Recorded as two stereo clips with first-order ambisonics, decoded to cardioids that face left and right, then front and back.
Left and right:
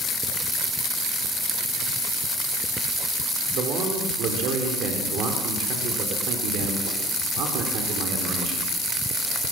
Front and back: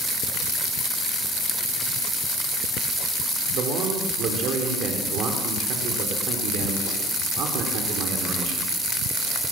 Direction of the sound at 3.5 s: 135° right.